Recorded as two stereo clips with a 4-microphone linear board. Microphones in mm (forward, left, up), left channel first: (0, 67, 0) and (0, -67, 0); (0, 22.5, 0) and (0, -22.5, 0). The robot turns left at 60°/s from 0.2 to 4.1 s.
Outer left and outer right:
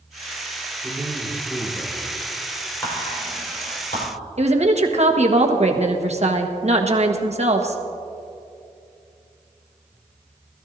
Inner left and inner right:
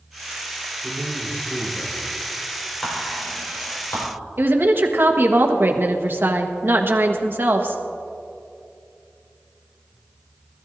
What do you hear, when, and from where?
0.8 s a man speaking: 140° right, 3.5 m; by 2.3 s 130° left, 3.5 m
2.8 s whispering: 15° left (ahead or behind), 4.5 m; by 4.1 s 85° left, 4.5 m
4.4 s a woman speaking: 55° right (ahead or behind), 1.3 m